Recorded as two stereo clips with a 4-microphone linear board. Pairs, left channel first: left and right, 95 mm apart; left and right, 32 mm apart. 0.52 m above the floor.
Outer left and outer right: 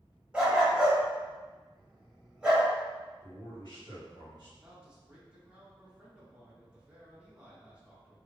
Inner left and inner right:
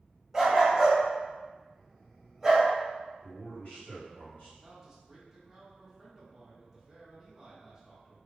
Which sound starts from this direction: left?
A man speaking, at 3.2 s.